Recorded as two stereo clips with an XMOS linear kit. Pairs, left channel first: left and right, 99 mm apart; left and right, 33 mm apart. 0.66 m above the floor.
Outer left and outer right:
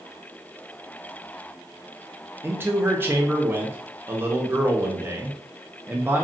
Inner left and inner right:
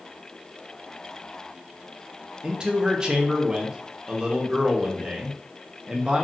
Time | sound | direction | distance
2.4 | a man speaking | 20° right (ahead or behind) | 0.6 m